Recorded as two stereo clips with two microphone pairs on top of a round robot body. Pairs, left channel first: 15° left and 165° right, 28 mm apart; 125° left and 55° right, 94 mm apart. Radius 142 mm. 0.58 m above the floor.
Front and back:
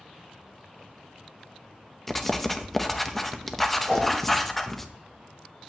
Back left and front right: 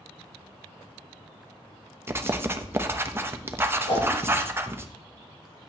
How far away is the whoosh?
About 3.5 m.